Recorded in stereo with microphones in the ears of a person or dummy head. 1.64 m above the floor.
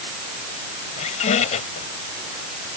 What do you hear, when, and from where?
1.0 s a squeak: 50° left (ahead or behind)